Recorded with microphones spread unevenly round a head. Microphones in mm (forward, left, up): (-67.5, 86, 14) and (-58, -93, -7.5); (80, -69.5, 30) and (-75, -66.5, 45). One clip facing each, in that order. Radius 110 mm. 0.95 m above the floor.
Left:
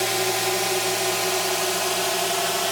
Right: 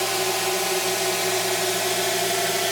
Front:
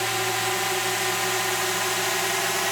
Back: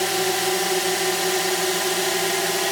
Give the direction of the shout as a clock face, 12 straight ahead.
No shout in this recording.